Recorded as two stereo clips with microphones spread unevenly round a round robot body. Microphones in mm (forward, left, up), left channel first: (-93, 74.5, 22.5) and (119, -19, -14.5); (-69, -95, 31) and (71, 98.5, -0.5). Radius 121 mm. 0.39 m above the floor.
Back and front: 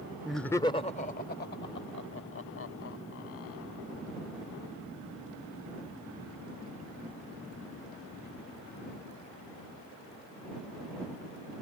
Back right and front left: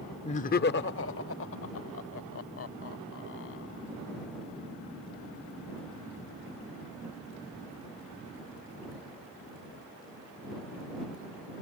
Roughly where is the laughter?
Right.